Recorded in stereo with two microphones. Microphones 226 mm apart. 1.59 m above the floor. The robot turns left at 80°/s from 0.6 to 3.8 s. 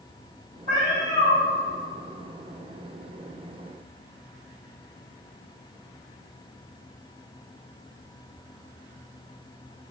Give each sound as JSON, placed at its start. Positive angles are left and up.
{"t": 0.7, "sound": "a cat meowing", "azimuth_deg": -95, "distance_m": 1.8}